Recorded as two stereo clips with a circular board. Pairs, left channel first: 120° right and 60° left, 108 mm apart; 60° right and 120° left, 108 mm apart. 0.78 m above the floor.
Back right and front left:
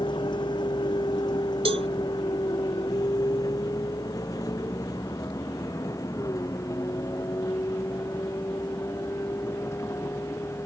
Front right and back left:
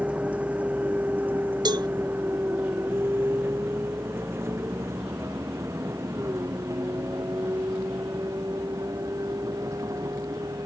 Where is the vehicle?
165° right; by 10.7 s 175° left.